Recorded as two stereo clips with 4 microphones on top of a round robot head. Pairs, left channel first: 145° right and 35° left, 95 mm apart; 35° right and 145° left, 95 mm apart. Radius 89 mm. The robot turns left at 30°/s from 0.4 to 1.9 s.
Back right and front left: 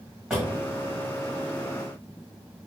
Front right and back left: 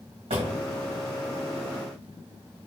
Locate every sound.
0.3 s a drawer: 115° left, 1.3 m